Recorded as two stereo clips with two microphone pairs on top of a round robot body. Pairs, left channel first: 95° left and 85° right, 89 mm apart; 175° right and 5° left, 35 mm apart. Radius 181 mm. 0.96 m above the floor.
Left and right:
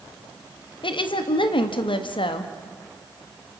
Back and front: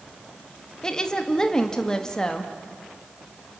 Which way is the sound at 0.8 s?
115° left.